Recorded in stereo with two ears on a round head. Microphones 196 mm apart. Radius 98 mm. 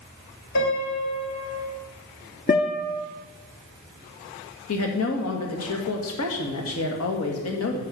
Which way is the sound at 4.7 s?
70° left (ahead or behind).